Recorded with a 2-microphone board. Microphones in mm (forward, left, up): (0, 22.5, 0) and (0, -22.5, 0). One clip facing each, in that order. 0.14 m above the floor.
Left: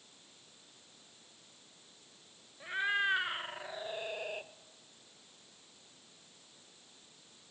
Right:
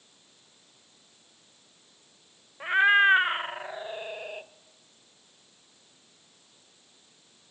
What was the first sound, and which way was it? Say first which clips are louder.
A cat meowing: right 13 dB; 55° right (ahead or behind).